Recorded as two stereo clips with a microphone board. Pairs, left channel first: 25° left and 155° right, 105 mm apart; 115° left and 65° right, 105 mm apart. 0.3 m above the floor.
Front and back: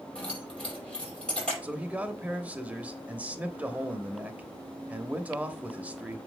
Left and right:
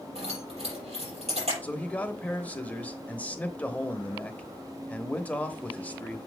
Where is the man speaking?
160° left, 0.9 m.